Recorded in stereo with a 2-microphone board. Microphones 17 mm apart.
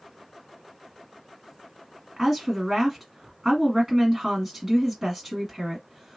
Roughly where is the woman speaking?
Centre.